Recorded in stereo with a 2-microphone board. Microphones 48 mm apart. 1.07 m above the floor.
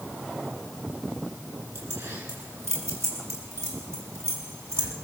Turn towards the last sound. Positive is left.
turn(degrees=-60)  # may be behind; listen again after turning